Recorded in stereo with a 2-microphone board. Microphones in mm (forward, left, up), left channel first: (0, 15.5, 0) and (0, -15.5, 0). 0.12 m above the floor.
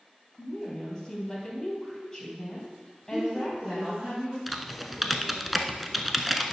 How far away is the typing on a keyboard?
About 0.7 m.